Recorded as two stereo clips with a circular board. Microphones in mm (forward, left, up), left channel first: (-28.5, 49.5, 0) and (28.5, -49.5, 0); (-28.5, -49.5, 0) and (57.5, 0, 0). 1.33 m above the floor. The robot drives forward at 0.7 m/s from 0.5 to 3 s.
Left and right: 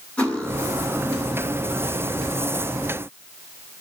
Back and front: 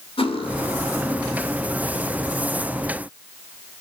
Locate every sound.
0.2 s cutlery clinking: 160° right, 2 m; by 1.4 s 165° right, 3 m